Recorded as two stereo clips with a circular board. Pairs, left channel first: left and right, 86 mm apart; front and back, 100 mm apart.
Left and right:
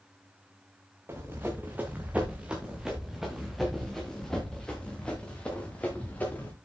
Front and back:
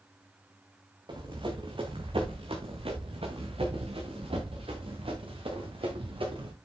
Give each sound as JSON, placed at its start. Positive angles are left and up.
{"t": 1.1, "sound": "running footsteps", "azimuth_deg": -150, "distance_m": 2.5}